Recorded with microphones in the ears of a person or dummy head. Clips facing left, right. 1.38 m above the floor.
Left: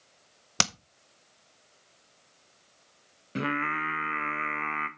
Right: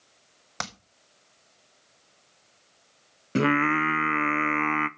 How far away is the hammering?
About 0.7 m.